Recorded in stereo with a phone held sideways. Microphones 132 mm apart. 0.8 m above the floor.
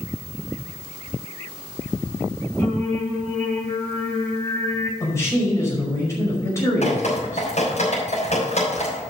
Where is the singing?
15° left (ahead or behind), 4 m.